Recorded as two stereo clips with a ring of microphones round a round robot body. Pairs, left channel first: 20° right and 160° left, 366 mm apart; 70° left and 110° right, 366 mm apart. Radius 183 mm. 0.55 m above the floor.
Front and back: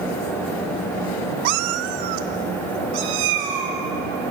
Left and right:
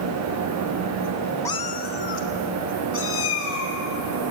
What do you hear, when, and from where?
1.4 s a cat meowing: 150° left, 0.6 m; by 3.8 s 125° left, 4 m